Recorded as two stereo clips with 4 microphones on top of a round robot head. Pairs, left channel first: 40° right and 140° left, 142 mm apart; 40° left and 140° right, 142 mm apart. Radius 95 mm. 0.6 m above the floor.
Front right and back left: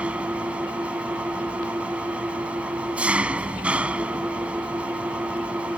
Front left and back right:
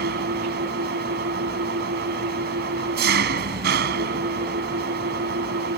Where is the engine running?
135° right.